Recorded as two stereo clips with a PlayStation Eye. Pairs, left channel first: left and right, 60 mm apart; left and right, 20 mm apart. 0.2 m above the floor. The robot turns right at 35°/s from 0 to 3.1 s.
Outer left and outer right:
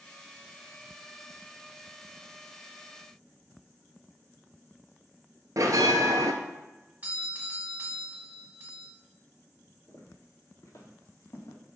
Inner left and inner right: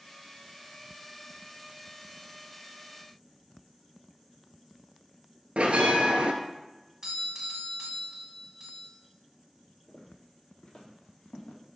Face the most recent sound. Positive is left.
turn(degrees=65)  # may be behind; listen again after turning